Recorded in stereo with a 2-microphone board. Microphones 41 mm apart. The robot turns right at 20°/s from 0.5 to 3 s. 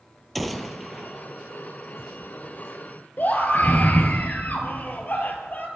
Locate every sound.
0.3 s a gunshot: centre (ahead or behind), 0.8 m; by 1.3 s 15° right (ahead or behind), 0.8 m
3.2 s a scream: 45° left (ahead or behind), 2.5 m